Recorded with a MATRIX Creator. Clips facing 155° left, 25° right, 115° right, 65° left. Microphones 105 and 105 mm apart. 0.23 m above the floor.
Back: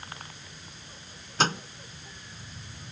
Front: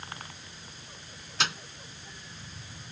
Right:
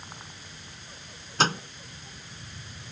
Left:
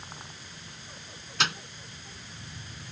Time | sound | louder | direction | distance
1.4 | a microwave | back 6 dB, right 6 dB | 160° right | ?